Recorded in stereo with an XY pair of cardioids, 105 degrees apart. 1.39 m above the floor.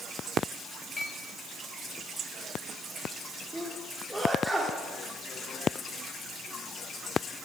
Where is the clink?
35° left, 7.5 m.